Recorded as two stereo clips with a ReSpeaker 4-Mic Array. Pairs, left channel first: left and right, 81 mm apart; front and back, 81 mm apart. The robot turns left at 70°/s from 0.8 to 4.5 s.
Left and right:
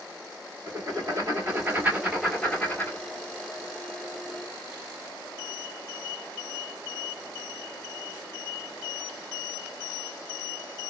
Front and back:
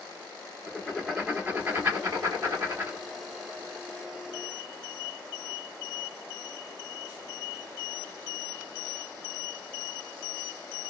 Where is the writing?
80° right, 2 m; by 3.0 s 125° left, 2 m.